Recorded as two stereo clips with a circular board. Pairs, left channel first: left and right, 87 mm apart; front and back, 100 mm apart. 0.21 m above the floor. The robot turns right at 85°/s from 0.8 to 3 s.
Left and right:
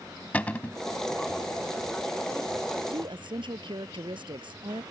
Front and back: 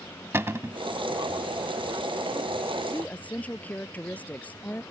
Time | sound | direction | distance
0.3 | a cupboard door | 145° left | ?
2.9 | a woman speaking | 85° right | ?